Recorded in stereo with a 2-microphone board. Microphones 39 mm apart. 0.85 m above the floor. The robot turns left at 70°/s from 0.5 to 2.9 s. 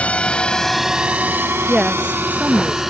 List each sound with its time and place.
0.0 s a drone: 35° left (ahead or behind); by 2.9 s 5° right (ahead or behind)
1.7 s a woman speaking: 20° right; by 2.8 s 100° right